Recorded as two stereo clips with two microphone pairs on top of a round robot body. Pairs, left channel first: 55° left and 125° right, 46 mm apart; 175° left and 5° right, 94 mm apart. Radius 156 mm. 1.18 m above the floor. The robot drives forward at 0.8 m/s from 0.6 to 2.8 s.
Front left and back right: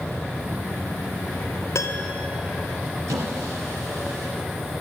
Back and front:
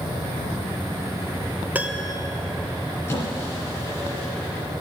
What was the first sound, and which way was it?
A piano, 70° left.